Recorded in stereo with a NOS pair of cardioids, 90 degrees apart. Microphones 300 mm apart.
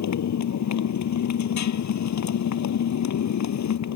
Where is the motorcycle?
60° left.